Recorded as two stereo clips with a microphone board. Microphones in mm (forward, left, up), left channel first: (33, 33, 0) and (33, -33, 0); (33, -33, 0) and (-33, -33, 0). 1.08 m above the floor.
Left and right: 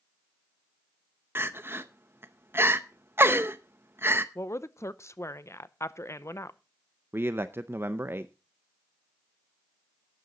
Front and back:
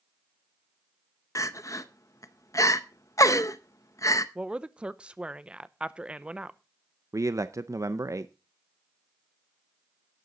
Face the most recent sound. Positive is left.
turn(degrees=-140)